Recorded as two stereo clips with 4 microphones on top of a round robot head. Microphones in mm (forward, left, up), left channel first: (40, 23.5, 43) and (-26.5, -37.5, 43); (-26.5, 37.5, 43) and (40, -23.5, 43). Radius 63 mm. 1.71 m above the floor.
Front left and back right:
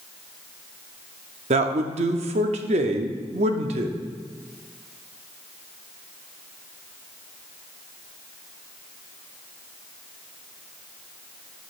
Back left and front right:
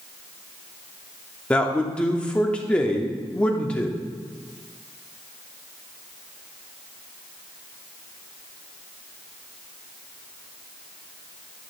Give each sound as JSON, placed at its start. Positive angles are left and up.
{"t": 1.5, "sound": "a man speaking", "azimuth_deg": -140, "distance_m": 0.7}